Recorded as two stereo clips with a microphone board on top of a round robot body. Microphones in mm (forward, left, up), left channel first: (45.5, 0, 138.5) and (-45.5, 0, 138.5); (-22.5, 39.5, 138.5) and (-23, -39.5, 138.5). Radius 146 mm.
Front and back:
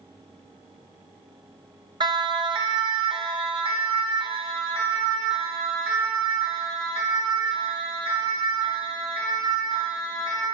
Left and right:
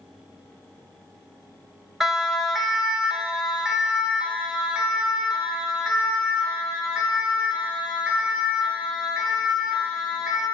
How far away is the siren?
About 3.5 m.